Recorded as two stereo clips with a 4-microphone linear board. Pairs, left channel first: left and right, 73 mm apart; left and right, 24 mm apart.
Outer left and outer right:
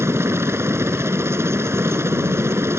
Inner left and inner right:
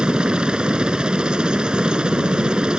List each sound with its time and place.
0.0 s a helicopter: 35° right (ahead or behind)